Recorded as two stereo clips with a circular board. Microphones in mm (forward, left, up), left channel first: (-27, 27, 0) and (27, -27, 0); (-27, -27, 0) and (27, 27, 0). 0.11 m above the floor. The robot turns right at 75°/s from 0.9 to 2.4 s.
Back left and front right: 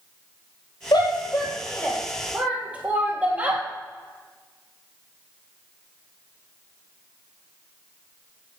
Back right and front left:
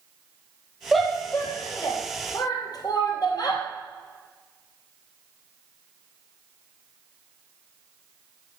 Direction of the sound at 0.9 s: 135° left.